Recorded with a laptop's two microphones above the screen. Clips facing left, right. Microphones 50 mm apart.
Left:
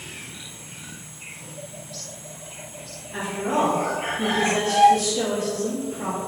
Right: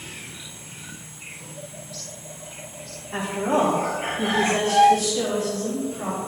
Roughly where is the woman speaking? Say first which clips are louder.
Right 2 dB; right.